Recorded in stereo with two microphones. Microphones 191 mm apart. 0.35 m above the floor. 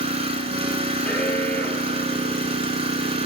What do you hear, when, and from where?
0.0 s an engine running: 35° right (ahead or behind), 0.9 m
1.1 s an alarm: 5° left (ahead or behind), 1.5 m